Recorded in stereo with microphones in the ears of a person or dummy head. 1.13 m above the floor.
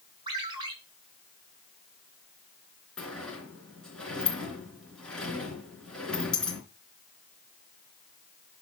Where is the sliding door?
5° left (ahead or behind), 3.5 m.